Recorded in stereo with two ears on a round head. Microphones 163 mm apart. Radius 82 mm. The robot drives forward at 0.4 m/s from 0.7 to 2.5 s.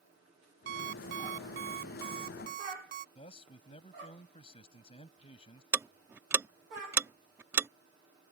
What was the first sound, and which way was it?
An alarm clock, 65° right (ahead or behind).